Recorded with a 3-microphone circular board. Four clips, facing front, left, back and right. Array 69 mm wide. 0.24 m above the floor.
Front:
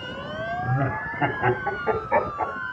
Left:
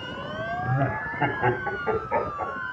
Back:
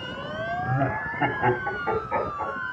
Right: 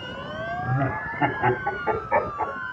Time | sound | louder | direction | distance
0.6 | laughter | even, back 1 dB | 140° left | 1.7 m